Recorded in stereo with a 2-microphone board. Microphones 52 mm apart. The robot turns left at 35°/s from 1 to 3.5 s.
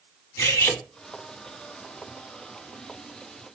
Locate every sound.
0.4 s cutlery clinking: 85° left, 1.0 m